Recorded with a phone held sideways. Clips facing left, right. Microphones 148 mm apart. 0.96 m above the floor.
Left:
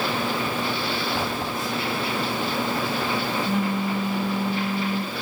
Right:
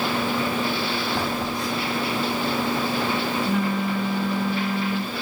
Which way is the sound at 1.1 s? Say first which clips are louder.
Right 1 dB; 5° left (ahead or behind).